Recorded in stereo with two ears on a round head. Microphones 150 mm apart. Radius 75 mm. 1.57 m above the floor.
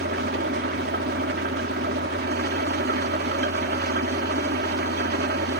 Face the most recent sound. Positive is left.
turn(degrees=-65)  # may be behind; listen again after turning